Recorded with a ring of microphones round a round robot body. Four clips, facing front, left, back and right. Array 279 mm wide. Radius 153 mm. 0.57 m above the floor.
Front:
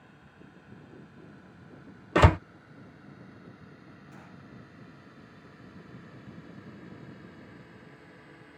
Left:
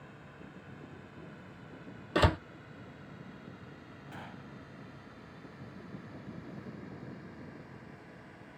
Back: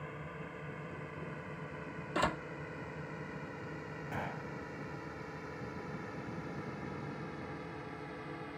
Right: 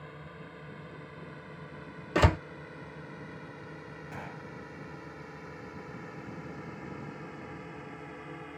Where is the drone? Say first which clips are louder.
Right 5 dB, back 9 dB; 145° right; by 8.6 s 125° right.